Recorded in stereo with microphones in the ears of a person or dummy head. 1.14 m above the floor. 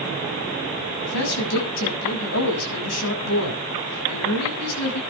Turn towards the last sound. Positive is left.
turn(degrees=90)